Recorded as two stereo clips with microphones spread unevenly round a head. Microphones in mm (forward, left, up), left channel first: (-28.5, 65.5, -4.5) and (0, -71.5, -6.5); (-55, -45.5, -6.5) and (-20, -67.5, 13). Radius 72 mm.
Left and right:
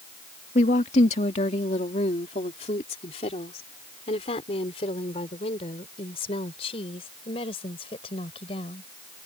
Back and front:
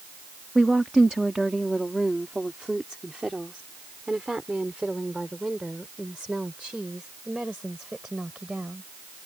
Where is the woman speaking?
55° left; by 8.9 s 45° left.